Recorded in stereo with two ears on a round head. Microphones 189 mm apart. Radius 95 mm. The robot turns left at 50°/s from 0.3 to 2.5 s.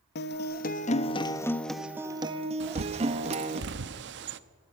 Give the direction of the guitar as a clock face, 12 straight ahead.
10 o'clock.